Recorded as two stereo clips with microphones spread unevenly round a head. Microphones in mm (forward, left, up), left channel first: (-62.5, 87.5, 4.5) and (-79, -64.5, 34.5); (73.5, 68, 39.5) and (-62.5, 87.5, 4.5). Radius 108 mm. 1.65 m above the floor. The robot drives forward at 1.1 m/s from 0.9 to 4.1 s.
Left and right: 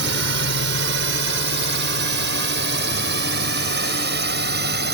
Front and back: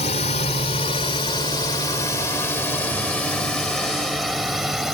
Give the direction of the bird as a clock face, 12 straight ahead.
I don't hear a bird.